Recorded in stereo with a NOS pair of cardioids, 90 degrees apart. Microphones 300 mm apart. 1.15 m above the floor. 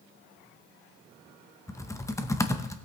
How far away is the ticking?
I don't hear ticking.